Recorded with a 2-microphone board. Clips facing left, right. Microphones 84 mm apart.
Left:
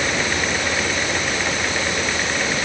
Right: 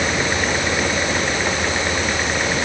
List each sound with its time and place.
Only background noise.